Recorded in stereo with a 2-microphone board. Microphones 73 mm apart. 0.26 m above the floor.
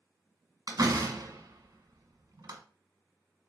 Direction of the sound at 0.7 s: 55° right (ahead or behind).